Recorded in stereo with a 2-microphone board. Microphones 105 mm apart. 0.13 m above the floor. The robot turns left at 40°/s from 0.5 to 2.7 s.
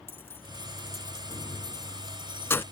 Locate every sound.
0.1 s keys jangling: 20° left (ahead or behind)